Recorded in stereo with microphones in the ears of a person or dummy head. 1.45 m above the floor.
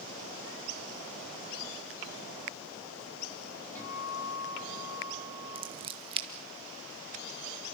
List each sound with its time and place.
3.8 s a guitar: 10° left (ahead or behind), 7.5 m
5.5 s scissors: 25° right (ahead or behind), 1.2 m